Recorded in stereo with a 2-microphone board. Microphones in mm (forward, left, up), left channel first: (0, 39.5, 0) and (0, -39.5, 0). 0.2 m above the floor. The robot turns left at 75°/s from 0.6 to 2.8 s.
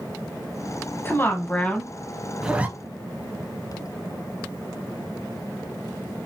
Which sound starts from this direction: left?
A woman speaking, at 1.1 s.